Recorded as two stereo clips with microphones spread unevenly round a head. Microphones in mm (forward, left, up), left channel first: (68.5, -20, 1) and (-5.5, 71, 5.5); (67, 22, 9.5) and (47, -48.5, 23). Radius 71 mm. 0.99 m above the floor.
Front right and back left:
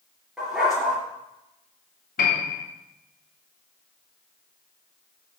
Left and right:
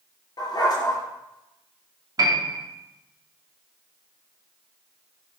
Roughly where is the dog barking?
Ahead left.